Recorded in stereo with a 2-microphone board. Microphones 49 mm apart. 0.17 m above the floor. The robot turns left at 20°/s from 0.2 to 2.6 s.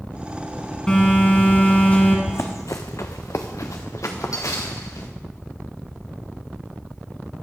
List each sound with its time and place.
0.9 s a phone buzzing: 15° left (ahead or behind), 1.9 m; by 2.2 s 30° left (ahead or behind), 1.9 m
2.3 s running footsteps: 65° left (ahead or behind), 0.8 m; by 5.1 s 80° left, 2 m